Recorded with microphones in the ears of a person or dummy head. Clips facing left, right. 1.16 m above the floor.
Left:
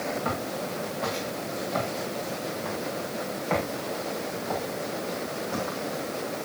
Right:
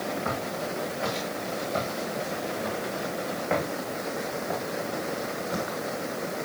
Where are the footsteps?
5° right (ahead or behind), 7.5 m; by 5.8 s 35° right (ahead or behind), 5.5 m.